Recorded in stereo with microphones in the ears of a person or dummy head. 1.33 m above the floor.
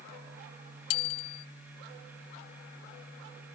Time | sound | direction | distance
0.9 | a bicycle bell | 85° left | ?